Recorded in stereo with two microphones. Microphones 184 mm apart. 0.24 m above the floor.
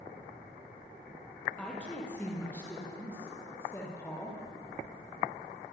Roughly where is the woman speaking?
Centre.